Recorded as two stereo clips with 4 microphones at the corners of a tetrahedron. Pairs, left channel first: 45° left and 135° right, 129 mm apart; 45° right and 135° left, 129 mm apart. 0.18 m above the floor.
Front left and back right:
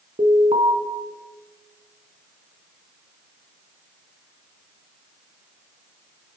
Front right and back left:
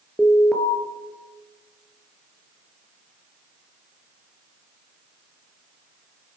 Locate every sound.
0.2 s an alarm: 130° right, 2 m